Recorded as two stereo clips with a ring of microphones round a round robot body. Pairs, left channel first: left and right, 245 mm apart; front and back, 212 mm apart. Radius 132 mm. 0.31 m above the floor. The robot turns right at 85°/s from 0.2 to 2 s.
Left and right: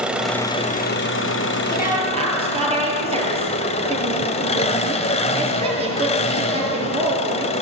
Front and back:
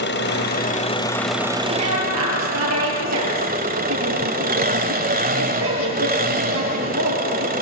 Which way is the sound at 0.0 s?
5° right.